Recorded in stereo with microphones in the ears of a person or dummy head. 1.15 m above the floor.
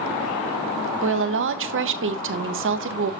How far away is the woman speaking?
About 0.7 m.